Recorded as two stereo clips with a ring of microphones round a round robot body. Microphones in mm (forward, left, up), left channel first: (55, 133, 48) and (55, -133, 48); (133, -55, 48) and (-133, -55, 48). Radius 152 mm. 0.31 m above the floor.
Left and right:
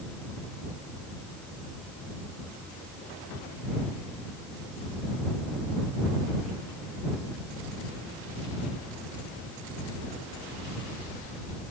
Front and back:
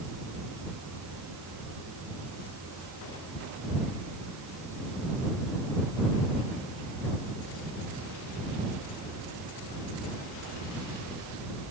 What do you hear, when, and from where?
Only background noise.